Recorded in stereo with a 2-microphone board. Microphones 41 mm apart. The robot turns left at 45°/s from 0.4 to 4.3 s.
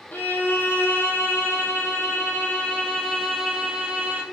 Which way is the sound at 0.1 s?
130° left.